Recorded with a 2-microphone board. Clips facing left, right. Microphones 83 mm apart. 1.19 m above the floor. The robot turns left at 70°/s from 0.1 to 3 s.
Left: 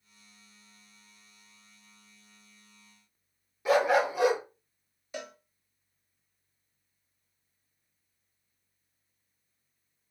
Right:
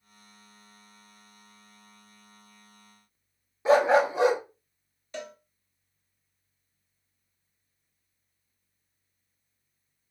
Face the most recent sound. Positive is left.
turn(degrees=10)  # may be behind; listen again after turning